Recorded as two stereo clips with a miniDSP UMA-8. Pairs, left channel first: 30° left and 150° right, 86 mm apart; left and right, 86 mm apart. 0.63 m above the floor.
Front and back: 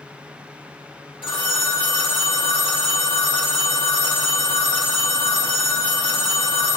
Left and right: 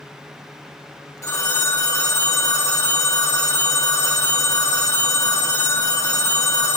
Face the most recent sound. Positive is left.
turn(degrees=35)